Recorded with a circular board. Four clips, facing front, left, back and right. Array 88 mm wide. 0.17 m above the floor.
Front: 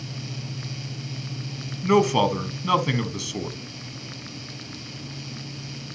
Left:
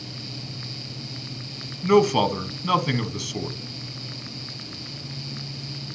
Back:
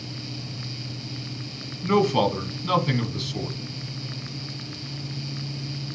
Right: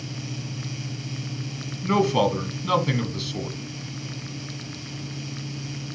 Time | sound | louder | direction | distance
1.8 | a man speaking | left 3 dB, front 1 dB | 30° left | 1.0 m